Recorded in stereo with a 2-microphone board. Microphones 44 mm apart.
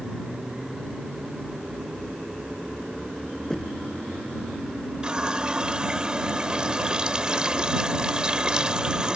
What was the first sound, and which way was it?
Knocking, 15° left (ahead or behind).